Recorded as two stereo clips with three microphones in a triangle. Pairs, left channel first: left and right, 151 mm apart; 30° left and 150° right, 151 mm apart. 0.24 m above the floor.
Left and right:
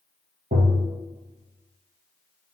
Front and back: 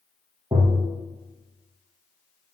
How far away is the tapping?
About 2 m.